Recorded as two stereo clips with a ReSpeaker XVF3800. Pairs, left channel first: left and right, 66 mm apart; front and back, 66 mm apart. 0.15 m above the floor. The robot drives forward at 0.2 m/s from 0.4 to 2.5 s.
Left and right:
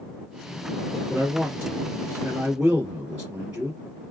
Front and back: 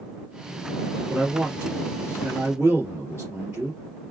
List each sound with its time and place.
1.1 s a man speaking: 145° right, 1.6 m; by 3.8 s 155° right, 1.8 m